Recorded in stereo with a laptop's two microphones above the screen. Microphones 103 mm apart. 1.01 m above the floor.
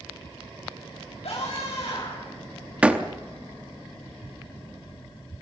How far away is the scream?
About 5 m.